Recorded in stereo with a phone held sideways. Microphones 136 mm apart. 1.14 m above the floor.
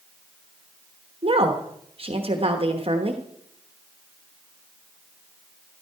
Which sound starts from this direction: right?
A woman speaking, at 1.2 s.